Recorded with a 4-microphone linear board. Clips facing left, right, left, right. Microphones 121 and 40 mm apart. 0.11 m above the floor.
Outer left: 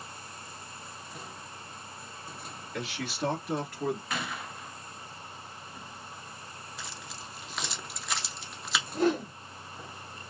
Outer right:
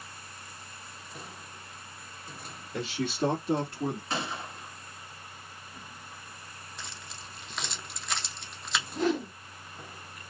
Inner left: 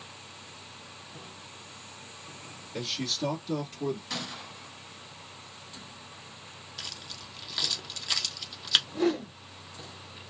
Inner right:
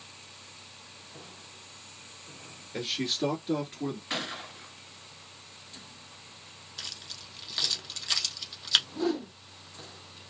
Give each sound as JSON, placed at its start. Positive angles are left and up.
{"t": 2.7, "sound": "a man speaking", "side_deg": -30, "distance_m": 1.8}
{"t": 4.1, "sound": "a gunshot", "side_deg": -30, "distance_m": 0.9}
{"t": 6.8, "sound": "keys jangling", "side_deg": 0, "distance_m": 0.9}
{"t": 8.9, "sound": "a whoosh", "side_deg": 45, "distance_m": 1.2}